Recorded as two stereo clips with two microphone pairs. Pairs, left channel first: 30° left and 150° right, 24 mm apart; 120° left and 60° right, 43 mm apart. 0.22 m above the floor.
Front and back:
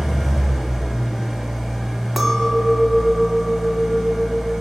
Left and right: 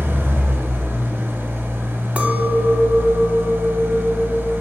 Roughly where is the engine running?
Ahead right.